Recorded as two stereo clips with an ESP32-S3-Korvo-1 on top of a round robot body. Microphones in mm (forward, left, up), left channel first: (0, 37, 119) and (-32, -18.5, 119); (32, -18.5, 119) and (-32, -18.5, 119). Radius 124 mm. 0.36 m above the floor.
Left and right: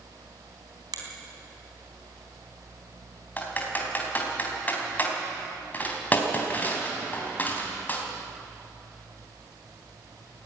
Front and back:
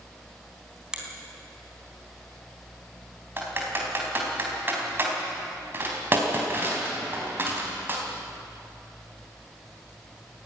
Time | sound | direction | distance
0.9 | a finger snap | 100° right | 3.5 m
3.4 | typing on a keyboard | 125° left | 3.5 m